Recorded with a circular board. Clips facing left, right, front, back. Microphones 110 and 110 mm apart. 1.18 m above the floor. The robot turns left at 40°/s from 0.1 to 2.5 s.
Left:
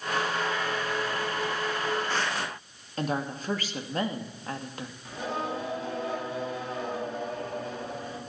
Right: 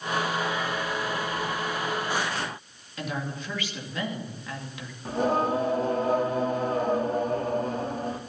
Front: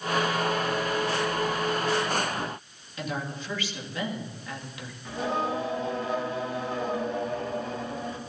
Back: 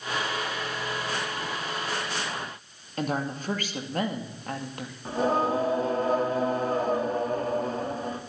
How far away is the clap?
I don't hear a clap.